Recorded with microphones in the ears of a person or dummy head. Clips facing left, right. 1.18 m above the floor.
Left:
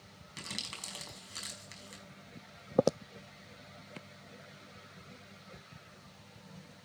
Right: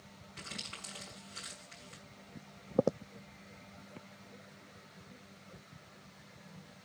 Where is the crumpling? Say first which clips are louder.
Left 2 dB; 80° left, 5 m.